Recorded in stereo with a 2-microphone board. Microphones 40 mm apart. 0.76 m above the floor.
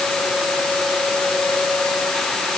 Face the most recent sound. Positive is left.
No sound to turn to.